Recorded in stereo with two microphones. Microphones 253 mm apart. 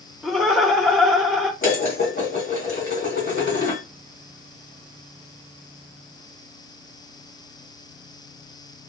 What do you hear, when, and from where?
0.2 s laughter: centre (ahead or behind), 0.8 m
1.6 s dishes clattering: 40° left (ahead or behind), 1.7 m